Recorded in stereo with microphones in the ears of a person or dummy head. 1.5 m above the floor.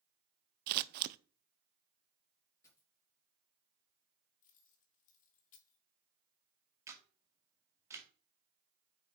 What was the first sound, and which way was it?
Scissors, 55° right (ahead or behind).